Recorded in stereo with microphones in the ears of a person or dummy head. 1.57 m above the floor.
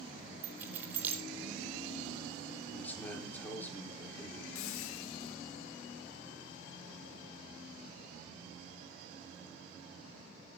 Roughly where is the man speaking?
Centre.